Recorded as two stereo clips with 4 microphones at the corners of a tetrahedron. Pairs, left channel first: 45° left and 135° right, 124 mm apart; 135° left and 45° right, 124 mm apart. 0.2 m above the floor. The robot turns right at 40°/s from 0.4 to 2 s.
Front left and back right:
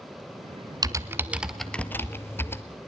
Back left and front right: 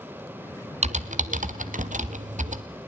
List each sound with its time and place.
0.8 s typing on a keyboard: 75° right, 1.0 m; by 2.6 s 30° right, 1.0 m